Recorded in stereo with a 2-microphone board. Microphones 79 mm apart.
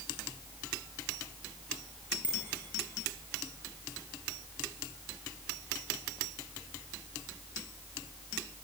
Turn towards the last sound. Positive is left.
turn(degrees=-20)  # may be behind; listen again after turning